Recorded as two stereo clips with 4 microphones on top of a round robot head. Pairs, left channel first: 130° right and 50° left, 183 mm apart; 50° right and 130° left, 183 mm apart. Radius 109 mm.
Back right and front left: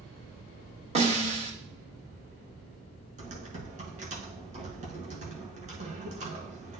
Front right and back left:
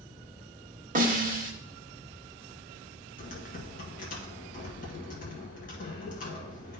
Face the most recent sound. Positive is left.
turn(degrees=-5)